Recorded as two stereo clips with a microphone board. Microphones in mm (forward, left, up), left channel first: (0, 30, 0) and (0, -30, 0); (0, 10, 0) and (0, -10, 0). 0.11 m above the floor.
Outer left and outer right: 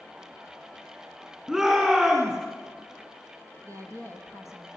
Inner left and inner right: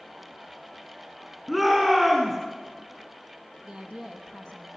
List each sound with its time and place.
1.5 s a shout: 10° right (ahead or behind), 6 m
3.6 s a woman speaking: 60° right (ahead or behind), 3 m